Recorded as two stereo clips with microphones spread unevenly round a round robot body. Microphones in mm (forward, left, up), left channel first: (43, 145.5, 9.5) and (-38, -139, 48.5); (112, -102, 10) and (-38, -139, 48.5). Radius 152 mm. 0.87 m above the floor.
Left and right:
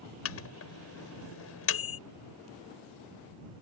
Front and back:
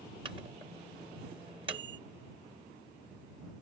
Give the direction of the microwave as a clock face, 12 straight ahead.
8 o'clock.